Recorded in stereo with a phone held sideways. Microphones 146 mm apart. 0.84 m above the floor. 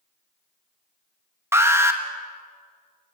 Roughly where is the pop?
I don't hear a pop.